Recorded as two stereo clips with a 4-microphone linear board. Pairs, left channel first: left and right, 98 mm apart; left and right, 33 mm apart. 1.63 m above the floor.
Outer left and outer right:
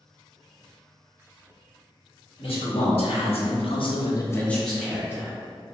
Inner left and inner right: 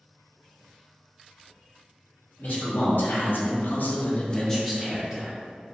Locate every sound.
2.4 s a man speaking: 70° left (ahead or behind), 1.2 m; by 5.3 s 20° right (ahead or behind), 0.9 m